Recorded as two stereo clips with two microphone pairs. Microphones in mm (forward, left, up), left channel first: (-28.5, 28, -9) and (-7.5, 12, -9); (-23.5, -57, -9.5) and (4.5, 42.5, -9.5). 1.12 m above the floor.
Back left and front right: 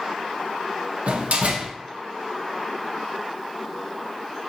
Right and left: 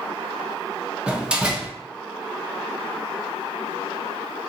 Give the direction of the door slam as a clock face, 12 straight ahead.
12 o'clock.